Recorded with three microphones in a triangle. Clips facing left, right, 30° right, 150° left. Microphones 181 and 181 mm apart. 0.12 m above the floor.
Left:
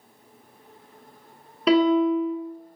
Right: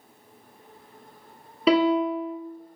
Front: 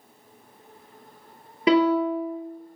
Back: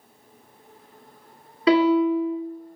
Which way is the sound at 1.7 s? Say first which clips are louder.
Left 2 dB, back 2 dB; 5° right.